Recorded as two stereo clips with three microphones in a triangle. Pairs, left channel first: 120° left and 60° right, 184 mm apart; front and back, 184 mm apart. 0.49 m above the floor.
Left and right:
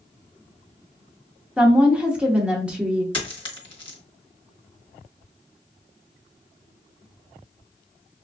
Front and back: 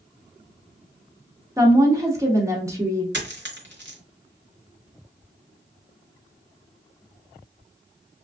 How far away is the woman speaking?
About 0.7 m.